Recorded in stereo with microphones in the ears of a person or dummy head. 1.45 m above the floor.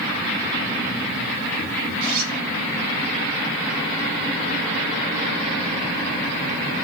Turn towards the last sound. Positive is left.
turn(degrees=-45)  # may be behind; listen again after turning